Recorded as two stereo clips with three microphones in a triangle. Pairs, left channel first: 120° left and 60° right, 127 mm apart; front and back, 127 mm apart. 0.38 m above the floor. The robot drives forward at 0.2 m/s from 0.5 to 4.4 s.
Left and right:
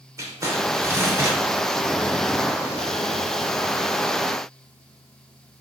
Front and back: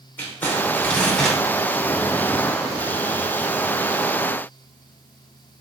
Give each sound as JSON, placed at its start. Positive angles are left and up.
{"t": 0.2, "sound": "crumpling", "azimuth_deg": -50, "distance_m": 0.7}